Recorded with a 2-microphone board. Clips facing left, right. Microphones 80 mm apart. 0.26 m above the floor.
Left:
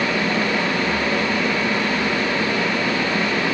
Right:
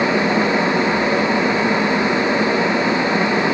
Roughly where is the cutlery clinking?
I don't hear cutlery clinking.